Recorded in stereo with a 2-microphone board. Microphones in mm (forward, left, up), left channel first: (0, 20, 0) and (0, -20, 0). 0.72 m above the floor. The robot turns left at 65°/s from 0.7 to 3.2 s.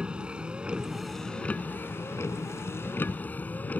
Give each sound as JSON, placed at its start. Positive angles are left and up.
{"t": 0.0, "sound": "a vehicle", "azimuth_deg": -160}